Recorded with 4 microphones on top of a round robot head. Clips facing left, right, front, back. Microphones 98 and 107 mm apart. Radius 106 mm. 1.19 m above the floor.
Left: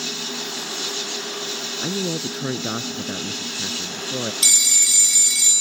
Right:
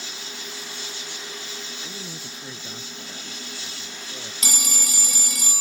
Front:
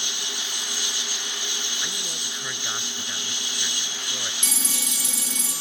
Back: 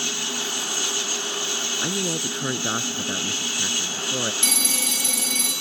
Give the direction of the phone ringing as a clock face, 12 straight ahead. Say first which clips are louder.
Right 1 dB, back 5 dB; 4 o'clock.